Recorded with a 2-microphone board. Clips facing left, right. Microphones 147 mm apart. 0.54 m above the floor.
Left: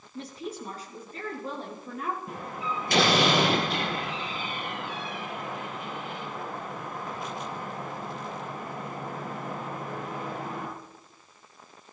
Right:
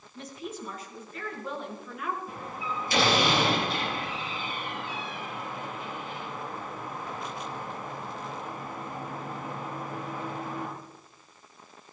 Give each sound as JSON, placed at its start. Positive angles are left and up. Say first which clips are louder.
{"t": 0.1, "sound": "a woman speaking", "louder": "left 2 dB", "side_deg": 35, "distance_m": 6.5}
{"t": 2.3, "sound": "a door slam", "louder": "left 2 dB", "side_deg": 60, "distance_m": 8.5}